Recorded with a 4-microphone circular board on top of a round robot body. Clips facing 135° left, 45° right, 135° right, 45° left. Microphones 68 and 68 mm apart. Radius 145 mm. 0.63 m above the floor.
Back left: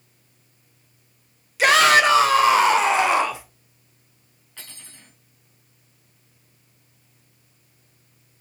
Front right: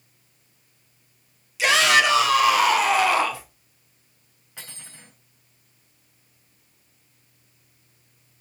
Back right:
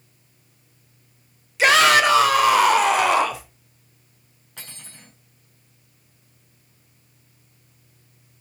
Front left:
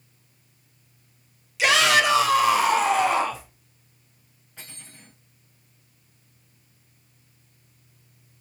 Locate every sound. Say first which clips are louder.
1.6 s a shout: back left 3 dB, back right 4 dB; 175° left, 2.5 m; by 3.5 s 155° right, 3 m
4.6 s cutlery clinking: front right 2 dB, back right 2 dB; 120° right, 7 m